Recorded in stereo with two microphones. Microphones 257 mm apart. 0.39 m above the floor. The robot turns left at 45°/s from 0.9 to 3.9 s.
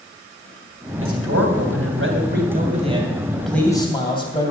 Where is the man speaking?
70° right, 3 m; by 4.5 s 160° left, 3 m.